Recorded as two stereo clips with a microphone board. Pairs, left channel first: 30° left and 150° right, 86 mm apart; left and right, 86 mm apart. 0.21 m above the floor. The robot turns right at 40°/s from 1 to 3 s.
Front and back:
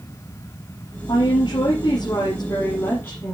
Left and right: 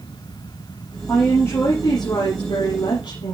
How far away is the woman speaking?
About 6 m.